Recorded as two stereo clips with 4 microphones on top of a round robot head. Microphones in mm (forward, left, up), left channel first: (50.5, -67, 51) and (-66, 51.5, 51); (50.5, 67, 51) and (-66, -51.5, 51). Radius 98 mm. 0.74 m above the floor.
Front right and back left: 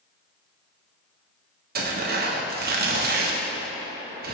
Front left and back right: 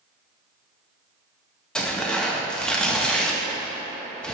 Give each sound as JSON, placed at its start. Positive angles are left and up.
{"t": 1.8, "sound": "tearing paper", "azimuth_deg": 130, "distance_m": 1.0}